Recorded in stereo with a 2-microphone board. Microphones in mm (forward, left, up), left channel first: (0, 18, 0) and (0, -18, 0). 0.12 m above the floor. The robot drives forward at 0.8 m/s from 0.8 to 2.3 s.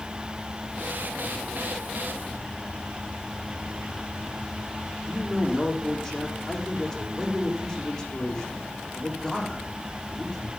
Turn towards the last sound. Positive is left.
turn(degrees=10)  # may be behind; listen again after turning